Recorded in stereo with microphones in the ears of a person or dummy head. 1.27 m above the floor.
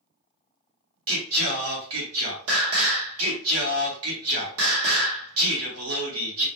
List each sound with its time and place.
1.1 s singing: 70° right (ahead or behind), 0.9 m